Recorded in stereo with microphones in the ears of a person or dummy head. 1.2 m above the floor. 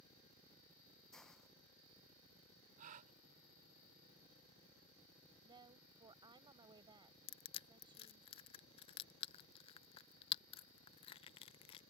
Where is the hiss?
5° left (ahead or behind).